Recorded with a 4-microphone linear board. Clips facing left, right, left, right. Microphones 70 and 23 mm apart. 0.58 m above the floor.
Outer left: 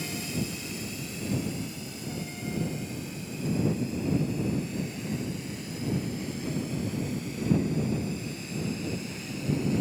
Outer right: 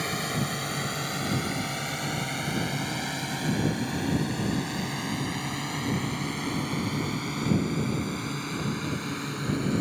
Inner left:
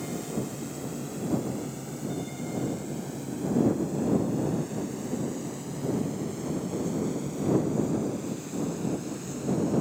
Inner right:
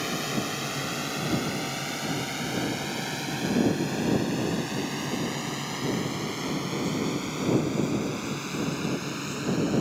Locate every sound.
0.0 s a drone: 60° right (ahead or behind); by 9.8 s 55° right (ahead or behind)